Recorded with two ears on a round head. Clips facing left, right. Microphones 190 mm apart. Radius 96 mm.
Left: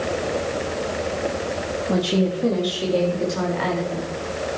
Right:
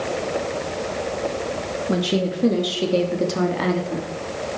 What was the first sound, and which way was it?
A woman speaking, 15° right (ahead or behind).